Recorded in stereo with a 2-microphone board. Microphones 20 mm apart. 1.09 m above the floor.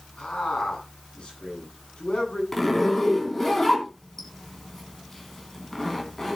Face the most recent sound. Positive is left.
turn(degrees=20)  # may be behind; listen again after turning